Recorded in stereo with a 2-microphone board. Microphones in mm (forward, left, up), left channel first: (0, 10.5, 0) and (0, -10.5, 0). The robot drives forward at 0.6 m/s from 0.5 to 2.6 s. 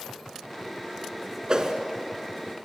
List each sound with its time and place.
1.5 s a whoosh: 40° right (ahead or behind), 2.5 m